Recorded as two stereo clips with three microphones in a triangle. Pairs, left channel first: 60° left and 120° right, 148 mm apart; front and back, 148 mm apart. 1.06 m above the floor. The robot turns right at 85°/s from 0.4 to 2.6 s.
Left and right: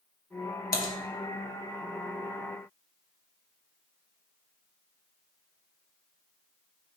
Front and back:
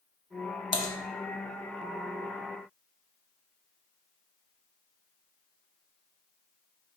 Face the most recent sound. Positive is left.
turn(degrees=-145)